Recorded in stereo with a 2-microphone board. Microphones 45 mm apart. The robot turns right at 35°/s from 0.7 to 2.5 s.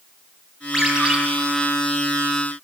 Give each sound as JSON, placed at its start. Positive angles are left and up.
{"t": 0.7, "sound": "a ringtone", "side_deg": -10, "distance_m": 1.5}